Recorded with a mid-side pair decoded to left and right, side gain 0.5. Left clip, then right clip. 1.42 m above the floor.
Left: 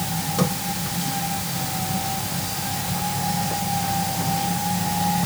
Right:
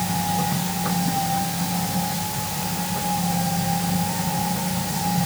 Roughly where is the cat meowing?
No cat meowing in this recording.